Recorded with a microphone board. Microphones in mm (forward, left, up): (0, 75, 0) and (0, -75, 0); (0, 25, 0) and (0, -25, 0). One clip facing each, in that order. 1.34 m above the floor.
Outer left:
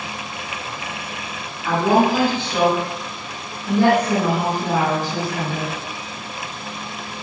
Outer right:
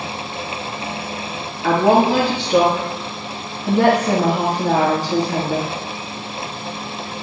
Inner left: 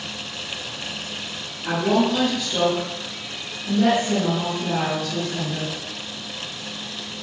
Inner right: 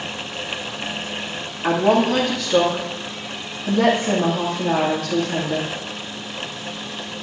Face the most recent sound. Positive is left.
turn(degrees=-85)